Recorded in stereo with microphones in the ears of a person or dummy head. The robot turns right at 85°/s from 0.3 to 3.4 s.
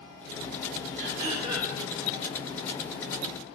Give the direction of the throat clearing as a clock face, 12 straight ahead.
2 o'clock.